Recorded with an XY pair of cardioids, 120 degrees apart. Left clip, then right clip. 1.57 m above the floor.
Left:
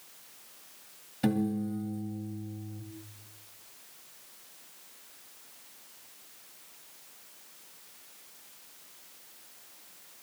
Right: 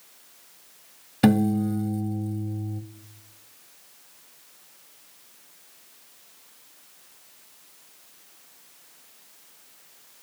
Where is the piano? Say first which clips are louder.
Right 9 dB; 70° right, 1.1 m.